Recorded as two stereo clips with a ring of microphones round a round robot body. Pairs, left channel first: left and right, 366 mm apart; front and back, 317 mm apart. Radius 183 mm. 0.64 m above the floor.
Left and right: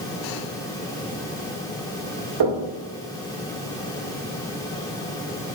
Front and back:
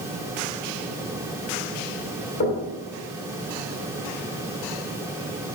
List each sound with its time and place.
2.4 s knocking: 65° right, 1.7 m